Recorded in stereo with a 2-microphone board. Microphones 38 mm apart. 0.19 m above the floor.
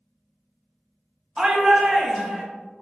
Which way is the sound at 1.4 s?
25° right (ahead or behind).